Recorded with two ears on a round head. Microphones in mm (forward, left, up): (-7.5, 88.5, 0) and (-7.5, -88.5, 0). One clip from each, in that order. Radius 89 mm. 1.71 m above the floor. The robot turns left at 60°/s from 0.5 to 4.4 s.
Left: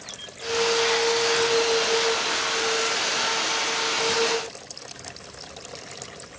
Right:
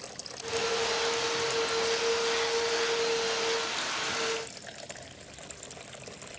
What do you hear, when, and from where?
Only background noise.